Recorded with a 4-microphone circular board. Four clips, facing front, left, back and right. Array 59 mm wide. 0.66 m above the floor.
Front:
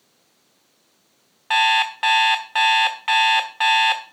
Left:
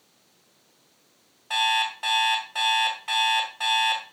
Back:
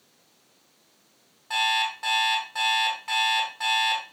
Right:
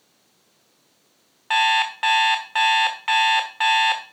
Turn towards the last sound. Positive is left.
turn(degrees=-40)